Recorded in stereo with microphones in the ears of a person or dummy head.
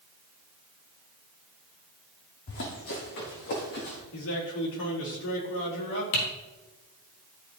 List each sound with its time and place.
2.5 s running footsteps: 65° left (ahead or behind), 4 m; by 4.0 s 55° left (ahead or behind), 4.5 m
4.1 s a man speaking: 75° left (ahead or behind), 4.5 m
6.1 s typing on a keyboard: 70° left (ahead or behind), 4 m